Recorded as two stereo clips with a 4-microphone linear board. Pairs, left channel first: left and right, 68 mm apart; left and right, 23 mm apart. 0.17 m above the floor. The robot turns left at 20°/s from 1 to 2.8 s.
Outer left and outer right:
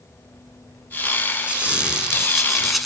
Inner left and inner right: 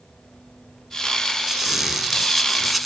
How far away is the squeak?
About 1.0 m.